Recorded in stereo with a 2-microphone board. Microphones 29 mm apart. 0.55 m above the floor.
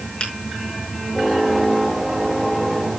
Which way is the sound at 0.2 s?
40° left (ahead or behind).